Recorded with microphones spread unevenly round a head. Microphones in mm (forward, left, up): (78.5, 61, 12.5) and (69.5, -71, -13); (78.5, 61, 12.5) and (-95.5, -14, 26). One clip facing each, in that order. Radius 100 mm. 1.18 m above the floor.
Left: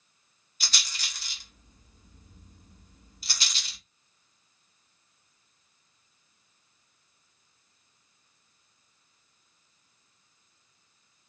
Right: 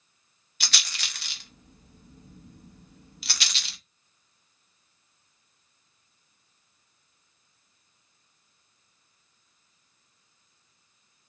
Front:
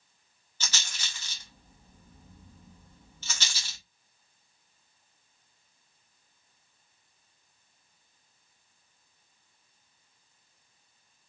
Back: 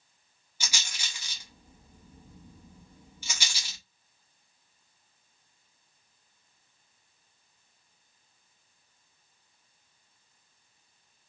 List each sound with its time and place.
0.6 s a rattle: 85° right, 0.6 m